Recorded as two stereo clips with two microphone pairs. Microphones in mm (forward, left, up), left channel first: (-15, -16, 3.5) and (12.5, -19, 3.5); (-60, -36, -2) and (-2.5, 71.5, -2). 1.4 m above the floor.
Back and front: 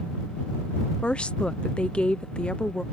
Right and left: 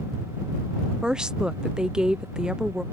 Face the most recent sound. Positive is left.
turn(degrees=145)